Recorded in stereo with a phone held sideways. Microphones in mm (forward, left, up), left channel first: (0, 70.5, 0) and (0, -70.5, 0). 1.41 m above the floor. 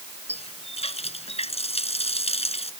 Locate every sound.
0.3 s a running tap: 45° left (ahead or behind)